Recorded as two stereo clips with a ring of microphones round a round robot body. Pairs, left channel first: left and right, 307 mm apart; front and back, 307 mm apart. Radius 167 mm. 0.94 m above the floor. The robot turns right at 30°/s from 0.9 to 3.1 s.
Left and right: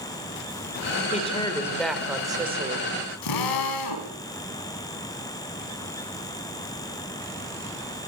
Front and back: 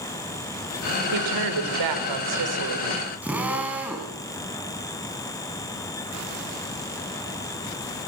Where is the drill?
95° left, 3.5 m.